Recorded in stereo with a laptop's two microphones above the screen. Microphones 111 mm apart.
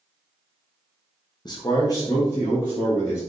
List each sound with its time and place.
1.4 s a man speaking: 40° left (ahead or behind), 0.5 m; by 3.2 s 25° left (ahead or behind), 1.6 m